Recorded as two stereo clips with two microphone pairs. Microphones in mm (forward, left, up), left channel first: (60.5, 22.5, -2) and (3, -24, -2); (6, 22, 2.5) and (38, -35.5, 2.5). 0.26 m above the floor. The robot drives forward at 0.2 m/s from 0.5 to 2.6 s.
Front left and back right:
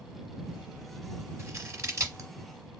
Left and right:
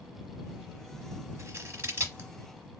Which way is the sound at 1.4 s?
95° right.